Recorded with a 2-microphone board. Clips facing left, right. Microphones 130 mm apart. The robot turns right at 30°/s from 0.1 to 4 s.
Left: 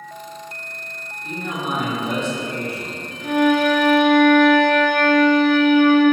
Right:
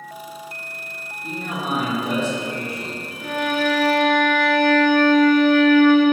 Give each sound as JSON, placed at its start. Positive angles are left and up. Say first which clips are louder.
{"t": 1.2, "sound": "a man speaking", "louder": "left 1 dB", "azimuth_deg": -45, "distance_m": 1.1}
{"t": 3.2, "sound": "a violin", "louder": "left 6 dB", "side_deg": 0, "distance_m": 0.9}